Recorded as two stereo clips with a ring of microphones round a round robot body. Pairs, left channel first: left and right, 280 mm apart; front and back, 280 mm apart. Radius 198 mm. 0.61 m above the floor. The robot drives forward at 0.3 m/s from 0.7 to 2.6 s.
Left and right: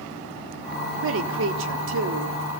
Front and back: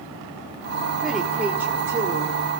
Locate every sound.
1.0 s a woman speaking: 90° right, 1.6 m; by 2.4 s 110° right, 1.6 m